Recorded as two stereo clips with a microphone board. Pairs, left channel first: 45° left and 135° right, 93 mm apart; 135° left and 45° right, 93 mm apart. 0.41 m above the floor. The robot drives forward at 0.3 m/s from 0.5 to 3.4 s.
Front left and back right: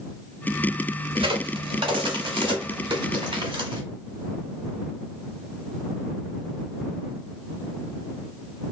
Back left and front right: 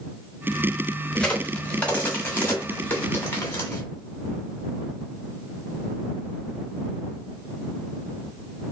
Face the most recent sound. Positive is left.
turn(degrees=-160)